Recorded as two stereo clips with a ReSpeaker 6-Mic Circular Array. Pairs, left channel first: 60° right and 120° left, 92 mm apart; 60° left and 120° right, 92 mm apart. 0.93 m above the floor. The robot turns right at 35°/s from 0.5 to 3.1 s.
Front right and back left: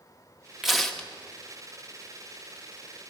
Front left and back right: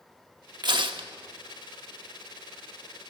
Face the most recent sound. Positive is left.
turn(degrees=-70)